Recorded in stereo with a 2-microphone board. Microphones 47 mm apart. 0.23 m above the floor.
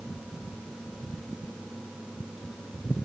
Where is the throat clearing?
I don't hear throat clearing.